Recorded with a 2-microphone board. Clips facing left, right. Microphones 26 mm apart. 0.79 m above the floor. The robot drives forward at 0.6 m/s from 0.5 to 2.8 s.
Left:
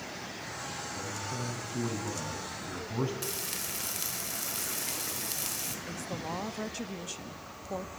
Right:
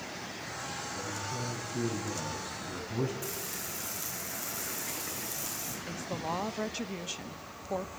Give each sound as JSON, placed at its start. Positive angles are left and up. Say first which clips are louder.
{"t": 0.9, "sound": "a man speaking", "louder": "even", "side_deg": 40, "distance_m": 8.5}
{"t": 3.2, "sound": "frying", "louder": "left 2 dB", "side_deg": 70, "distance_m": 2.5}
{"t": 5.9, "sound": "a woman speaking", "louder": "right 5 dB", "side_deg": -20, "distance_m": 1.0}